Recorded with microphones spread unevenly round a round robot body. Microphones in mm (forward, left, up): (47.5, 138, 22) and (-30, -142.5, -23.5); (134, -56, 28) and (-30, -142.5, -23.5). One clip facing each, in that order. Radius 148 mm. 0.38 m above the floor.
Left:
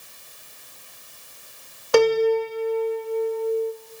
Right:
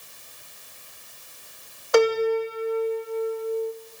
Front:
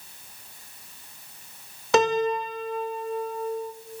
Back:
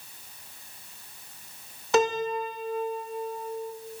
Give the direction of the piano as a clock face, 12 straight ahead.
11 o'clock.